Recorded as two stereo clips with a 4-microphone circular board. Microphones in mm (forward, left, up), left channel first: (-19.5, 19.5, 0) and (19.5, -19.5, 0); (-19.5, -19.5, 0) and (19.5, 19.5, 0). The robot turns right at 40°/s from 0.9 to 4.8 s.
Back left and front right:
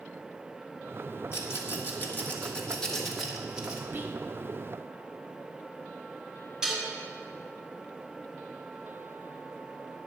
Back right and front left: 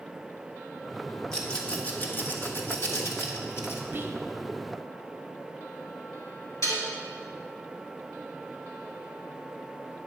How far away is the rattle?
About 1.4 m.